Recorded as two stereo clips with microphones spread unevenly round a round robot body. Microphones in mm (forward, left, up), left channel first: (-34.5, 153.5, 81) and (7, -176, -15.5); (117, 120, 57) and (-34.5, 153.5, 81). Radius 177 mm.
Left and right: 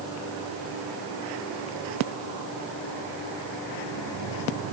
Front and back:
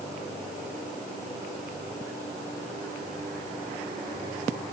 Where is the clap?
I don't hear a clap.